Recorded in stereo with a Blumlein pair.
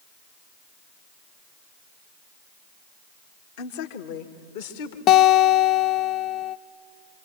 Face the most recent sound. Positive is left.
turn(degrees=35)